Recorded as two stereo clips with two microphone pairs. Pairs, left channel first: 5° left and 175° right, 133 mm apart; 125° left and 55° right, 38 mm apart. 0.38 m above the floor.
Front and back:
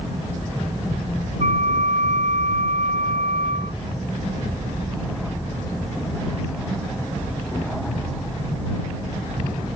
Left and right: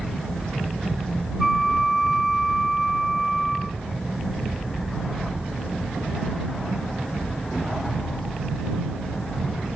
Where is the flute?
145° right.